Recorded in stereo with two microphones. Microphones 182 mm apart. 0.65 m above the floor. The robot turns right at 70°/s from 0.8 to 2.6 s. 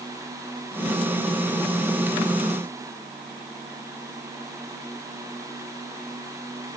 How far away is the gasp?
No gasp in this recording.